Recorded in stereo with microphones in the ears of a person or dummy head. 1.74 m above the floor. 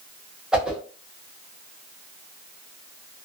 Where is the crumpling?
I don't hear crumpling.